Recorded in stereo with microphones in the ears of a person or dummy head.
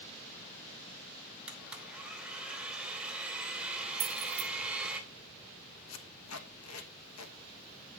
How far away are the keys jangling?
About 2 m.